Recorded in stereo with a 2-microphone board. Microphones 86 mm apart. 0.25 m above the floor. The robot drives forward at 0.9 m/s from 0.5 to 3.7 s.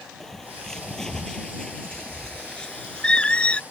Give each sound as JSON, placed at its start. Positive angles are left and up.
{"t": 0.2, "sound": "a bird", "side_deg": 5}